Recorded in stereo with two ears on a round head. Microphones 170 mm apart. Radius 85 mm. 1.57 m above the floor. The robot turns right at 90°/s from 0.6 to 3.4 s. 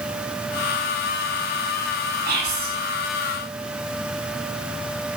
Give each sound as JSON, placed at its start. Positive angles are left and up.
{"t": 2.2, "sound": "whispering", "azimuth_deg": -110, "distance_m": 0.7}